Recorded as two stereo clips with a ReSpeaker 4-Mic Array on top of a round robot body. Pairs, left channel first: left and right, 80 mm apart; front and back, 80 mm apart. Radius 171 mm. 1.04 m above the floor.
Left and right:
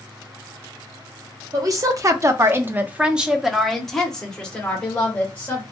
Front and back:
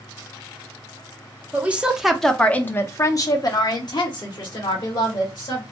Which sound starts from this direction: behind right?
A woman speaking, at 1.5 s.